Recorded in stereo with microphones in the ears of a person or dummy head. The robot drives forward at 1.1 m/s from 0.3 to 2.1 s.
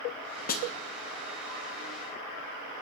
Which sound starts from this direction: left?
A snare drum, at 0.5 s.